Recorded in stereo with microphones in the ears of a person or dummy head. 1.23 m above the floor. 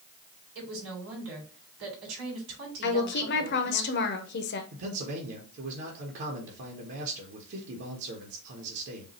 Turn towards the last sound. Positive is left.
turn(degrees=-60)  # may be behind; listen again after turning